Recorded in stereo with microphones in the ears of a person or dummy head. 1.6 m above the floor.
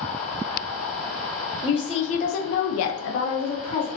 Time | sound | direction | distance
1.6 | a woman speaking | 30° left (ahead or behind) | 1.1 m